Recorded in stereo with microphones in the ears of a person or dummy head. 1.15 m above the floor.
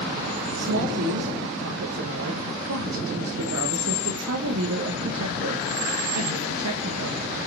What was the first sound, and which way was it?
A woman speaking, 75° right (ahead or behind).